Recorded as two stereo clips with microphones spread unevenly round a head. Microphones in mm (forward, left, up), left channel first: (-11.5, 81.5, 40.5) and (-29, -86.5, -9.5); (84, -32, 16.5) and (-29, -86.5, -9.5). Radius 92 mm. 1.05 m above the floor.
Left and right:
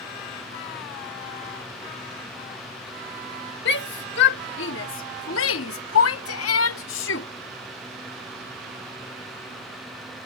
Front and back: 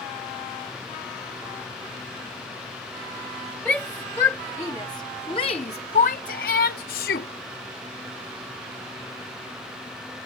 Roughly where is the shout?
Left.